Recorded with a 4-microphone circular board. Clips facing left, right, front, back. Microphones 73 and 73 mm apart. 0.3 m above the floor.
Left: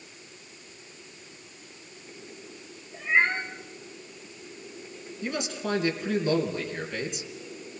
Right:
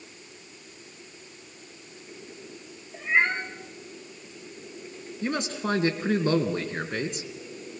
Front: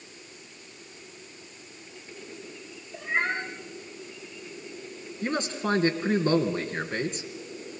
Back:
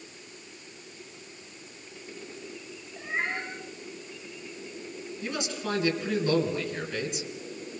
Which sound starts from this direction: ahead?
A cat meowing, at 2.9 s.